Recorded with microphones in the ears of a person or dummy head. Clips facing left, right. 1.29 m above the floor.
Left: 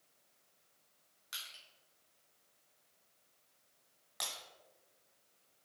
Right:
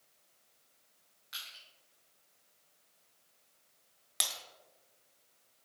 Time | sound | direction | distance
1.3 | crushing | 55° left (ahead or behind) | 2 m
4.2 | breaking glass | 45° right (ahead or behind) | 1.5 m